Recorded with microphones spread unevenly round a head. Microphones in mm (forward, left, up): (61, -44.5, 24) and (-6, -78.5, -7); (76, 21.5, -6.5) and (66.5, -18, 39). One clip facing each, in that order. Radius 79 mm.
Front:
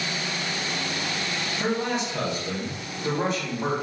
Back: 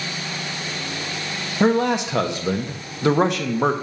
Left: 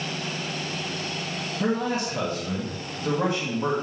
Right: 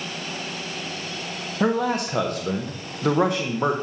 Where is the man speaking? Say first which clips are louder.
Back 9 dB, right 4 dB; 145° right, 1.1 m.